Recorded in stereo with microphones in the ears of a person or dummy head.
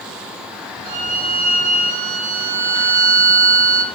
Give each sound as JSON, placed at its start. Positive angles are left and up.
{"t": 0.8, "sound": "a violin", "side_deg": -50, "distance_m": 0.9}